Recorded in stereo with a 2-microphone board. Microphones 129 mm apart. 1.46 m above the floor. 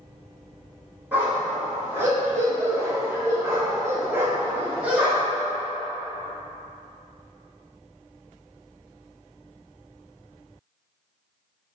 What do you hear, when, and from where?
1.1 s a dog barking: 15° right (ahead or behind), 1.7 m; by 5.4 s 10° right (ahead or behind), 1.4 m